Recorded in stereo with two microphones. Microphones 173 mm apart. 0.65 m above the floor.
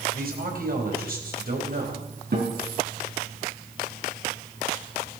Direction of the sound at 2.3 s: 70° right (ahead or behind).